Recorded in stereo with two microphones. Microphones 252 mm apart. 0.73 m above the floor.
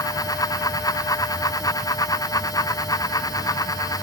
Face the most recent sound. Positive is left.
No sound to turn to.